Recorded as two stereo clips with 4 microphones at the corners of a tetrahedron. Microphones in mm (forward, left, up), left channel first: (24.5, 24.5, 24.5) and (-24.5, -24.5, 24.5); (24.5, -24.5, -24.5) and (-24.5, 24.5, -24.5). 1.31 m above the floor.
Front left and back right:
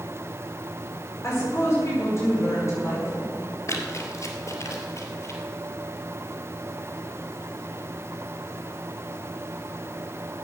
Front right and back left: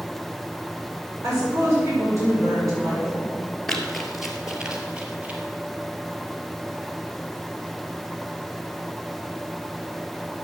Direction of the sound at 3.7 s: 40° left.